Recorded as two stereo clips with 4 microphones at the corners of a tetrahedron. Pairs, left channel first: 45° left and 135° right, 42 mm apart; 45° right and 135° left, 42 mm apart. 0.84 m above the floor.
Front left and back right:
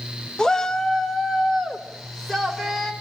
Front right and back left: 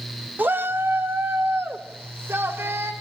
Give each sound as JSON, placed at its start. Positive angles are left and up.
{"t": 0.4, "sound": "a shout", "azimuth_deg": 115, "distance_m": 1.3}